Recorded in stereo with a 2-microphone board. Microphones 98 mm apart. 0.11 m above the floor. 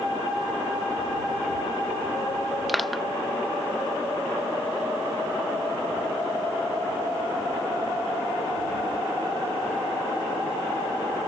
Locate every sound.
2.7 s crushing: centre (ahead or behind)